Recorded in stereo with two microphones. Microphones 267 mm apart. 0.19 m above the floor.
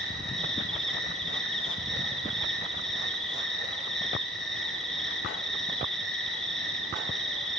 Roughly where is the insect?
Centre.